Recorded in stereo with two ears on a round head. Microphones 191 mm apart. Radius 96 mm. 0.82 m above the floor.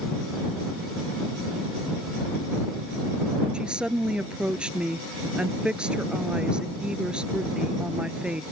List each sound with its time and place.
3.5 s a woman speaking: 5° right (ahead or behind)